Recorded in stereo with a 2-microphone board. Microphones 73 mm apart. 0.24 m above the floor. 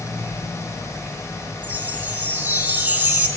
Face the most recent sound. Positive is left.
turn(degrees=-25)  # may be behind; listen again after turning